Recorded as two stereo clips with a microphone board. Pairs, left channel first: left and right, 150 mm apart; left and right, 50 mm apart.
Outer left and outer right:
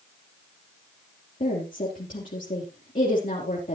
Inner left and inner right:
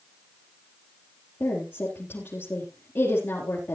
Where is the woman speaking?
60° left (ahead or behind), 4 m.